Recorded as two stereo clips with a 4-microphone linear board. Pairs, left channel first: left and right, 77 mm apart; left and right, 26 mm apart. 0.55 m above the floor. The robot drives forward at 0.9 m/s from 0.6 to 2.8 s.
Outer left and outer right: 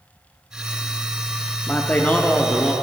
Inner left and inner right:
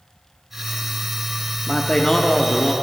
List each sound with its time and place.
1.7 s a man speaking: 15° left (ahead or behind), 0.7 m